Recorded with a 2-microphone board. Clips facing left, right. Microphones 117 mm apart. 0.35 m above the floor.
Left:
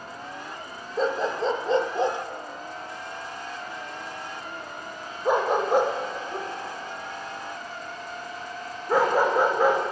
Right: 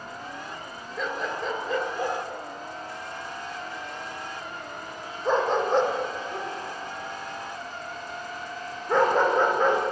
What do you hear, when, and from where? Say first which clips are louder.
1.0 s a dog barking: left 6 dB; 35° left (ahead or behind), 1.4 m; by 9.8 s 5° left (ahead or behind), 5.5 m